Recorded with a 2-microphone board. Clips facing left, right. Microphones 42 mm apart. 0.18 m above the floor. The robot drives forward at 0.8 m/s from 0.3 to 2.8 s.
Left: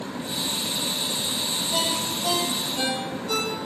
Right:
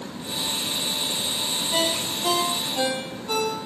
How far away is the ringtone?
About 2 m.